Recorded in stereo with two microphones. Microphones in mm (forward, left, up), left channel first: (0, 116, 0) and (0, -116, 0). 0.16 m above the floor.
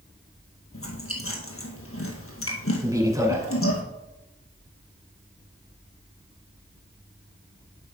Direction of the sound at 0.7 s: 70° left (ahead or behind).